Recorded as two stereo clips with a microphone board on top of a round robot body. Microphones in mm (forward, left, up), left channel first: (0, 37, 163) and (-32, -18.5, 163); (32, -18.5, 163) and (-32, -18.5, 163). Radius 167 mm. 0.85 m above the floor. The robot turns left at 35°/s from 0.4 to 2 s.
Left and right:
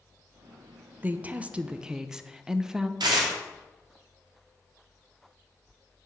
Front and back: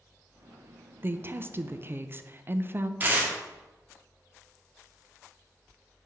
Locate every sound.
1.0 s a woman speaking: 160° right, 0.7 m; by 2.9 s 165° left, 0.7 m
3.0 s tearing paper: 120° right, 0.7 m